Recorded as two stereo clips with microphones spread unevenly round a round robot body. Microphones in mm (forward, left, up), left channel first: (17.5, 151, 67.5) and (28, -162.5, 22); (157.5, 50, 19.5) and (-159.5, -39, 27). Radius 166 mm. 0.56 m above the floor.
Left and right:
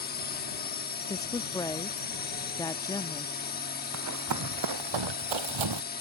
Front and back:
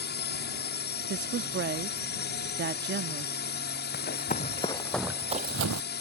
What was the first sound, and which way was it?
A drone, 45° left.